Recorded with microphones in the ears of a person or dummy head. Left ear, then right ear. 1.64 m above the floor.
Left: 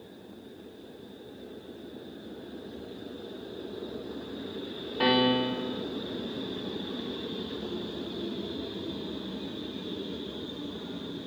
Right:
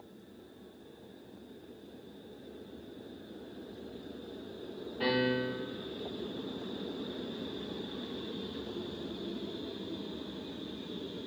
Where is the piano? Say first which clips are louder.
Left 6 dB; 55° left (ahead or behind), 0.7 m.